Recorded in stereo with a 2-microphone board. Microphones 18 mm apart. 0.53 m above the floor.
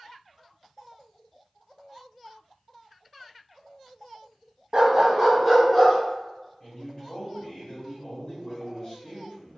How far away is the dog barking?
About 0.7 m.